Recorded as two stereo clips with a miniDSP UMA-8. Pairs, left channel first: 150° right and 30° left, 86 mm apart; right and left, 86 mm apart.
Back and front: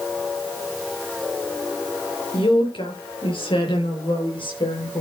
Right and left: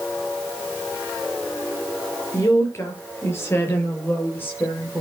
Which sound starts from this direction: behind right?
A woman speaking, at 2.3 s.